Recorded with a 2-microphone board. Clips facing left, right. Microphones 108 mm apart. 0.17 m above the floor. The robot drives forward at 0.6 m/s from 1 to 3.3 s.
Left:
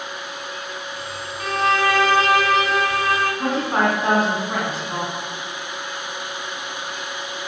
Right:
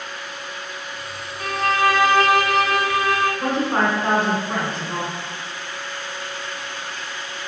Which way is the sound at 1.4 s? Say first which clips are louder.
Even; 5° right (ahead or behind).